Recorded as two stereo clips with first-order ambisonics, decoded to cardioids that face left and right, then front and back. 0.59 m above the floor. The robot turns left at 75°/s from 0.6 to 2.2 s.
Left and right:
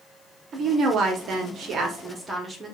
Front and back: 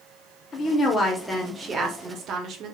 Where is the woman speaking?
40° right, 0.7 m; by 2.8 s 160° right, 0.7 m.